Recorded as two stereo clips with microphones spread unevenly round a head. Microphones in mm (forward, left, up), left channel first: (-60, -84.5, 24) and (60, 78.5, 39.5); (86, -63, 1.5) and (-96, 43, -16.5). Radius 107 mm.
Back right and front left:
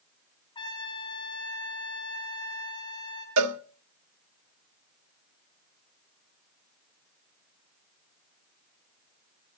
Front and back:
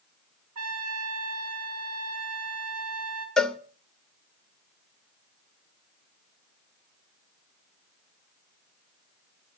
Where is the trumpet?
165° left, 4.5 m.